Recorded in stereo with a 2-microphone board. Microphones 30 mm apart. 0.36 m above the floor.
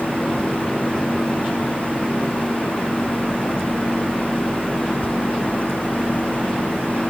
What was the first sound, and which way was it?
Only background noise.